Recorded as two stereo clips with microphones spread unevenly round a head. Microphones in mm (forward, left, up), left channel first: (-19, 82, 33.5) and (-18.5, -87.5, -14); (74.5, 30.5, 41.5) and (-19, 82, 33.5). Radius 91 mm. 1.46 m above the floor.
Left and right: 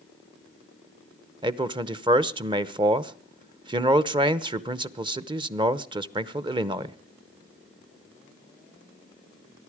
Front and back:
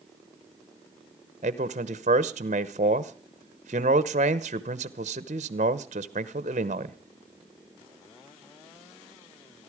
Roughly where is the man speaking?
Behind.